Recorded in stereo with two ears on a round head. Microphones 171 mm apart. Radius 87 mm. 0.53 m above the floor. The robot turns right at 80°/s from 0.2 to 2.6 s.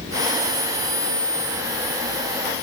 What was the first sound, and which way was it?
Only background noise.